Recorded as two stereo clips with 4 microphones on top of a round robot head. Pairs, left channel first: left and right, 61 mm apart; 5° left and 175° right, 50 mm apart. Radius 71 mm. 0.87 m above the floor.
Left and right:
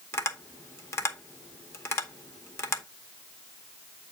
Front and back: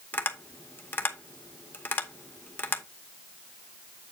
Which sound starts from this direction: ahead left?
Tapping, at 0.1 s.